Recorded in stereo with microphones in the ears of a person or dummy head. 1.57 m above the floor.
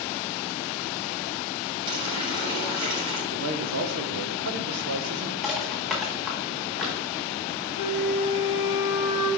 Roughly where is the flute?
Centre.